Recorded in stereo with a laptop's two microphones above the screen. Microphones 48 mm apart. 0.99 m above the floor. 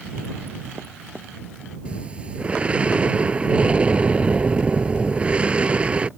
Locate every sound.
1.9 s breathing: 25° right (ahead or behind)